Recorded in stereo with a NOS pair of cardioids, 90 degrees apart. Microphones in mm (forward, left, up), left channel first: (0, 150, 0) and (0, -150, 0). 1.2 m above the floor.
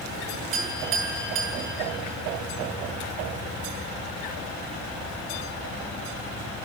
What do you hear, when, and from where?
0.5 s a clink: 70° right, 3.5 m